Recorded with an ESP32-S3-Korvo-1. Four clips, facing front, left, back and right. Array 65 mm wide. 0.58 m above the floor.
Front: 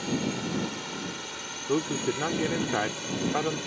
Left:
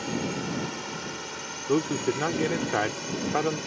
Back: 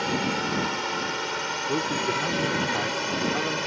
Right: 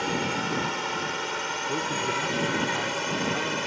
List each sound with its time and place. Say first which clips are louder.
0.0 s a drone: right 3 dB, back 4 dB; 140° right; by 3.7 s 135° right
1.7 s a man speaking: left 6 dB, even; 65° left